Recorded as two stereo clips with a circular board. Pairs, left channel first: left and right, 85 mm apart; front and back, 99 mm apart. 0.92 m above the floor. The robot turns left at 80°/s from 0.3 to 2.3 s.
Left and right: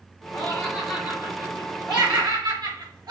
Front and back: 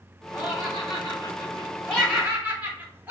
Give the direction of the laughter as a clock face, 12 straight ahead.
10 o'clock.